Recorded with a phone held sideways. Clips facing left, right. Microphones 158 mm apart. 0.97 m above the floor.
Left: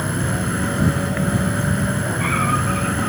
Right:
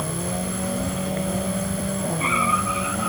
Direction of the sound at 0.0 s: 75° left (ahead or behind).